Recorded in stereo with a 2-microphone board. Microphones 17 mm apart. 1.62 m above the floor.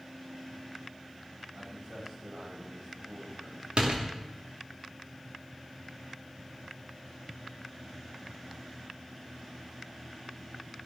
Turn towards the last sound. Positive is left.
turn(degrees=-80)